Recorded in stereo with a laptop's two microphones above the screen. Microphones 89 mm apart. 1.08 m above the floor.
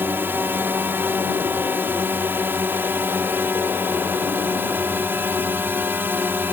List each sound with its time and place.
0.0 s a drone: 25° right (ahead or behind)